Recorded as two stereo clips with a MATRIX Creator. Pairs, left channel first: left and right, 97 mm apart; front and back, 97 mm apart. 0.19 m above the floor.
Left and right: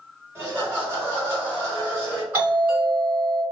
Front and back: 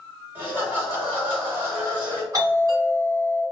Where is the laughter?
130° right, 1.9 m.